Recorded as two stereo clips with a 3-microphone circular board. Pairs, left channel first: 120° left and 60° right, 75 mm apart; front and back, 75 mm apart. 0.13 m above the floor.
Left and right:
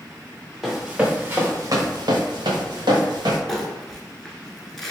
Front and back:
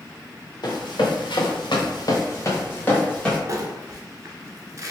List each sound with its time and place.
0.6 s running footsteps: 25° left, 1.5 m; by 3.4 s 75° right, 1.9 m
3.5 s crumpling: 155° right, 0.8 m